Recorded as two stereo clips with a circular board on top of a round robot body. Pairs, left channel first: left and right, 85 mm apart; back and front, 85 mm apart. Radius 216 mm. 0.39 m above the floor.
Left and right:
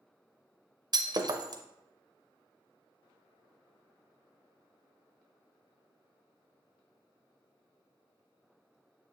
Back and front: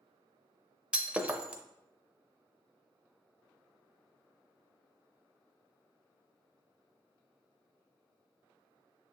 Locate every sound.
0.9 s breaking glass: 75° right, 0.8 m